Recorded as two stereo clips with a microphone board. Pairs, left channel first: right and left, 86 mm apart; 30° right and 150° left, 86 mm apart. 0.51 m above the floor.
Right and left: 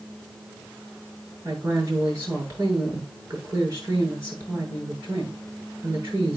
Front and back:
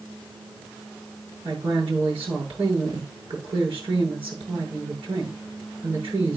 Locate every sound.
1.4 s a woman speaking: 145° left, 8 m